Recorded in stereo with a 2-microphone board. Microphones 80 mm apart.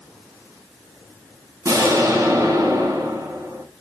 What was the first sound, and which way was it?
An explosion, 40° right (ahead or behind).